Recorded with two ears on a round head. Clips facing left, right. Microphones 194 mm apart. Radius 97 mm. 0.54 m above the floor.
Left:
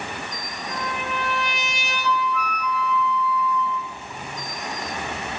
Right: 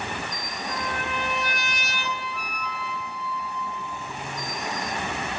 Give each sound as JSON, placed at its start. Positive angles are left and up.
{"t": 0.7, "sound": "a trumpet", "side_deg": 0, "distance_m": 6.5}
{"t": 2.0, "sound": "a flute", "side_deg": -30, "distance_m": 1.8}